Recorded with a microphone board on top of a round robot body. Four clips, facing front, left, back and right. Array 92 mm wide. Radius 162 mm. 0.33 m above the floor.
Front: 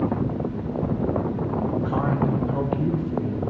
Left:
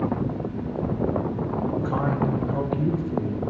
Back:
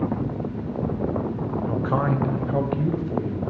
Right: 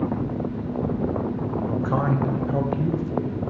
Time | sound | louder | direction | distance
1.7 | a man speaking | right 3 dB, back 3 dB | 155° right | 1.9 m